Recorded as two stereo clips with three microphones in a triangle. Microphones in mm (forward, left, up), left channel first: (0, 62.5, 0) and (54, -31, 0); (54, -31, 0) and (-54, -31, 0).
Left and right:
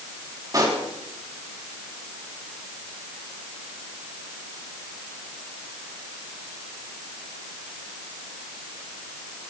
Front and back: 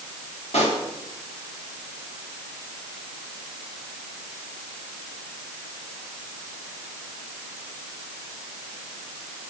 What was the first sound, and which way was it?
A pop, 5° right.